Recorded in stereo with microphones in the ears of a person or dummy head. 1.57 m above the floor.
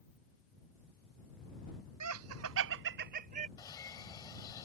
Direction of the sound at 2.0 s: 90° right.